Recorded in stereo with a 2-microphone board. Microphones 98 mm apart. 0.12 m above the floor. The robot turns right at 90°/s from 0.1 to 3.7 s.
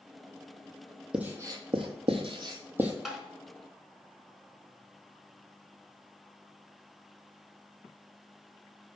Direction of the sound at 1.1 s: 10° right (ahead or behind).